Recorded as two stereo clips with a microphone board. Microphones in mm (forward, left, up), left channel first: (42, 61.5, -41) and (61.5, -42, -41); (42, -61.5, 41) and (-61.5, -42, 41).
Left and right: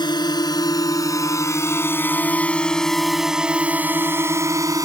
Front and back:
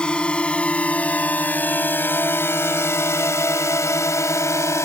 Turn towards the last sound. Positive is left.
turn(degrees=-55)